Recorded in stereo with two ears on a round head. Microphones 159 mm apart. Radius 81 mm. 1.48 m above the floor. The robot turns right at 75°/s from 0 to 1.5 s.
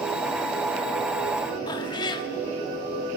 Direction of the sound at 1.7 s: 25° left (ahead or behind).